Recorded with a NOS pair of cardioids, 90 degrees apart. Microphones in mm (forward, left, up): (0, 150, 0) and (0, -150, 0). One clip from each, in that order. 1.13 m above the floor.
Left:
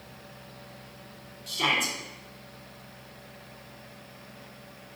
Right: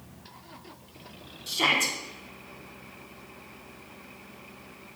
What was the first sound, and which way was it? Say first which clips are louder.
A shout: right 2 dB; 30° right.